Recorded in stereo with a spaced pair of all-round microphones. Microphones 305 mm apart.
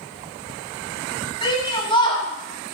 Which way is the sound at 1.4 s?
15° left (ahead or behind).